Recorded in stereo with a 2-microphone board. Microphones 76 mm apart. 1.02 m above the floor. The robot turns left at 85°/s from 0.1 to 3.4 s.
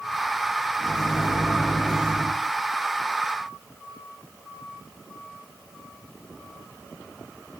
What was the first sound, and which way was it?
A microwave, 125° right.